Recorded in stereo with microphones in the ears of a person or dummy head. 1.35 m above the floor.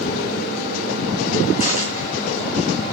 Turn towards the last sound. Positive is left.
turn(degrees=40)  # may be behind; listen again after turning